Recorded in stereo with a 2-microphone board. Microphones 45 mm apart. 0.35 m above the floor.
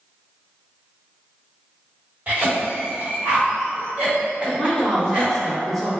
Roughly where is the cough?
Right.